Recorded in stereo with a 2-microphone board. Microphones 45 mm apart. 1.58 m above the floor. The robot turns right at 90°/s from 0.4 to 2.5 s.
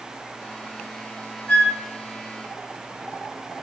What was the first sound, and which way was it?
A flute, 30° left (ahead or behind).